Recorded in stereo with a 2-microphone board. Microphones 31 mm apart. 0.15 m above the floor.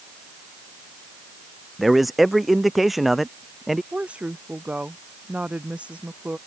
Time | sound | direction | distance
1.8 | a man speaking | centre (ahead or behind) | ?
3.9 | a woman speaking | 40° right (ahead or behind) | ?